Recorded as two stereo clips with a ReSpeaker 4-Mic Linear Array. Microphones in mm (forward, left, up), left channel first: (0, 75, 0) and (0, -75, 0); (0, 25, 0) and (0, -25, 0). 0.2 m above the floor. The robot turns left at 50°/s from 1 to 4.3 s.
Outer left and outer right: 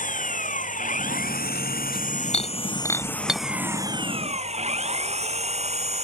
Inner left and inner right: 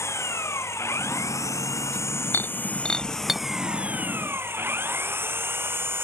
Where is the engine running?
120° left; by 6.0 s 45° right.